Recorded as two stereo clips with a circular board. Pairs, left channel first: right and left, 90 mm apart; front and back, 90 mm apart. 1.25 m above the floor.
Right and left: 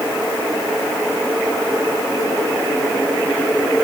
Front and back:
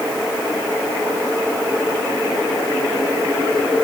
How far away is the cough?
I don't hear a cough.